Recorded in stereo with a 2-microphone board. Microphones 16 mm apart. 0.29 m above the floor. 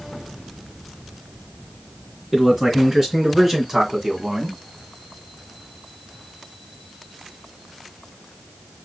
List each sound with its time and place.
2.3 s a man speaking: 35° right (ahead or behind), 3.5 m; by 4.6 s 45° right (ahead or behind), 1.8 m